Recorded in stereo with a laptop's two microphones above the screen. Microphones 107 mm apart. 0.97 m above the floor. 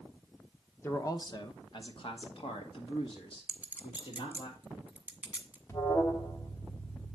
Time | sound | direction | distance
0.8 | a man speaking | 25° left (ahead or behind) | 0.7 m
3.5 | a clink | 15° right (ahead or behind) | 1.2 m
5.7 | an alarm | 25° left (ahead or behind) | 1.3 m